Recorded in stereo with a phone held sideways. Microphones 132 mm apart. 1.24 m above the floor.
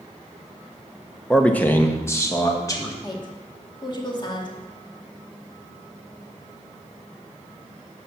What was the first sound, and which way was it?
A man speaking, 5° left (ahead or behind).